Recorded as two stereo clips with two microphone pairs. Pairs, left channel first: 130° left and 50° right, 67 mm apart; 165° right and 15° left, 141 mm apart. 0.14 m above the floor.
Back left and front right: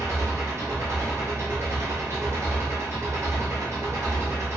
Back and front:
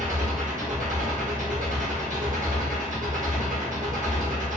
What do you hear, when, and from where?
0.0 s an engine running: 5° right, 1.7 m